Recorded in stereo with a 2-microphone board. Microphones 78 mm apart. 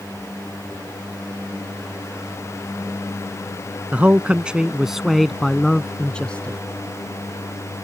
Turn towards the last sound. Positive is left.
turn(degrees=15)  # may be behind; listen again after turning